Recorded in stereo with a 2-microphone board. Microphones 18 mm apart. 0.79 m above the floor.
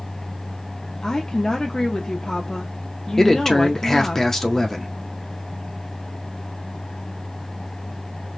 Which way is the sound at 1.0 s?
30° left (ahead or behind).